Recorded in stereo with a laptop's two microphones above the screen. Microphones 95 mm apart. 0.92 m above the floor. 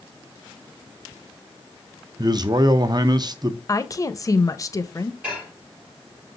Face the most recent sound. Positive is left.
turn(degrees=-15)  # may be behind; listen again after turning